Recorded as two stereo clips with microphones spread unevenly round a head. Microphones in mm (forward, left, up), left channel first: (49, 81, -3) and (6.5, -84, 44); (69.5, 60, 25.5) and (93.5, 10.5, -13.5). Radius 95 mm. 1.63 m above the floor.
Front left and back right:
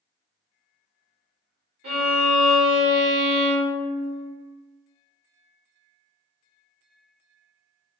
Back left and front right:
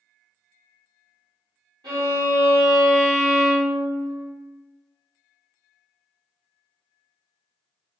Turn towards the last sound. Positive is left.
turn(degrees=-85)